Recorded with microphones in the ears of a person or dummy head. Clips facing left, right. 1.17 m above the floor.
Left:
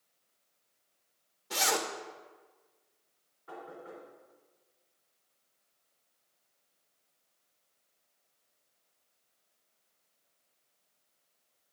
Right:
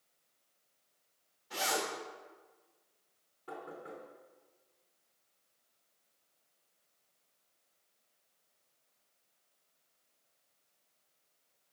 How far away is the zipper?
About 1.3 m.